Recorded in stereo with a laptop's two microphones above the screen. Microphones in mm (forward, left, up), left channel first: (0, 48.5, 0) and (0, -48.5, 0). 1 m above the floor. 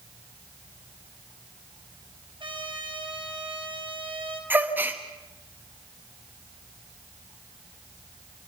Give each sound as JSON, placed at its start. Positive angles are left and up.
{"t": 2.4, "sound": "a trumpet", "side_deg": -65, "distance_m": 4.0}
{"t": 4.5, "sound": "a gasp", "side_deg": -20, "distance_m": 1.2}